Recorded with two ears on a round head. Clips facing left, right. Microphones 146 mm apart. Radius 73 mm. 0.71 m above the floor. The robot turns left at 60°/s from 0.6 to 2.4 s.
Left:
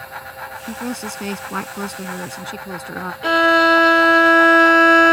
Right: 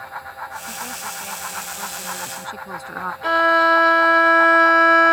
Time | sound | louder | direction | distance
0.7 | a woman speaking | left 7 dB | 135° left | ?
3.2 | a violin | left 3 dB | 30° left (ahead or behind) | ?